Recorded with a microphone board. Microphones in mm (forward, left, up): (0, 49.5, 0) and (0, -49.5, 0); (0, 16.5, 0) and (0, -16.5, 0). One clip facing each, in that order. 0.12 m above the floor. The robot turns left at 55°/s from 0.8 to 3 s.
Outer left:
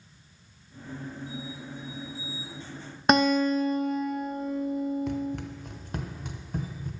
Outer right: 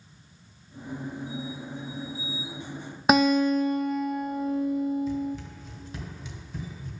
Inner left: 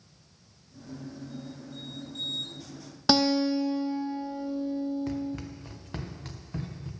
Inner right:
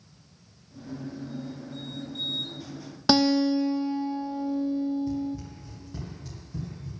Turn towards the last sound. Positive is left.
turn(degrees=45)  # may be behind; listen again after turning